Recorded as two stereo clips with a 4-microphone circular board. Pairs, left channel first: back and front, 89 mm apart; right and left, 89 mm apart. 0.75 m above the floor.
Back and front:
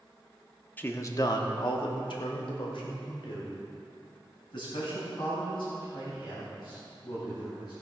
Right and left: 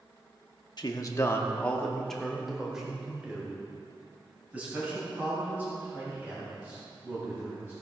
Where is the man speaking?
115° right, 1.1 m; by 7.7 s 155° left, 8 m.